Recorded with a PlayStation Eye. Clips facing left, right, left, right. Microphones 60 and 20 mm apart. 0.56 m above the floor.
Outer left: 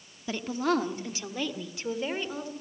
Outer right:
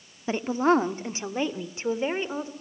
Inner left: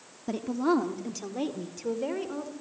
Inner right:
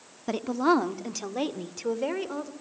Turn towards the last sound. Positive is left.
turn(degrees=-25)  # may be behind; listen again after turning